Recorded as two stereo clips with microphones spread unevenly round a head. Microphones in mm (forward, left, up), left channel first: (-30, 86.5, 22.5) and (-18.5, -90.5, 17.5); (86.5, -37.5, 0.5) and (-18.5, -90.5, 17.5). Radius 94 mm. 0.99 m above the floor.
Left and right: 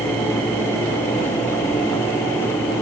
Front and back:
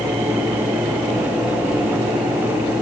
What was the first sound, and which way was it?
Only background noise.